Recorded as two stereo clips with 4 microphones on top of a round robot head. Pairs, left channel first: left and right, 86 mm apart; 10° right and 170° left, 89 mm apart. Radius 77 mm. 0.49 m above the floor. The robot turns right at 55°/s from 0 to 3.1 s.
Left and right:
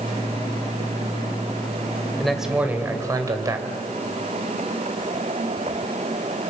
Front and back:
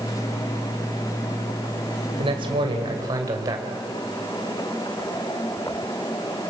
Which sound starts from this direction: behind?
A man speaking, at 2.2 s.